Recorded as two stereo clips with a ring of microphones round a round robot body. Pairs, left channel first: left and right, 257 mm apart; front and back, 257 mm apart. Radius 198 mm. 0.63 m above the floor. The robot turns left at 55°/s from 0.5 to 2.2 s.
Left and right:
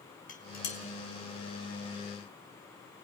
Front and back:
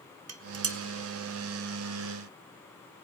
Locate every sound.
0.3 s dishes clattering: 155° left, 1.6 m; by 0.8 s 140° left, 1.6 m